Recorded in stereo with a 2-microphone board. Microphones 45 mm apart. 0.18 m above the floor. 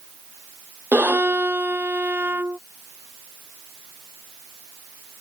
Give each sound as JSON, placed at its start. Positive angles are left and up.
{"t": 0.9, "sound": "a violin", "side_deg": -45}